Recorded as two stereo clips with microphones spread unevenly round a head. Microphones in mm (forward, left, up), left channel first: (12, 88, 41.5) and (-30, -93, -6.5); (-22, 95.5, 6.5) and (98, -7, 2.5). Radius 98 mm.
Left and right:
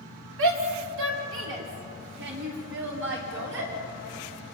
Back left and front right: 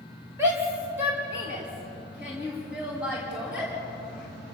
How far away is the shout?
About 3.5 m.